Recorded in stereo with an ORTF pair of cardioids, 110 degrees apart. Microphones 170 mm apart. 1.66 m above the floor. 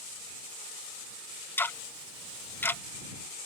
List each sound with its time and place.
1.6 s ticking: 10° left